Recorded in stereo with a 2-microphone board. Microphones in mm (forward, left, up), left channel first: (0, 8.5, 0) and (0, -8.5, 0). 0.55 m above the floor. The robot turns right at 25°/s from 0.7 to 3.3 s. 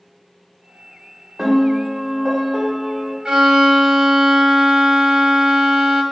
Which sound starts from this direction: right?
A violin, at 3.2 s.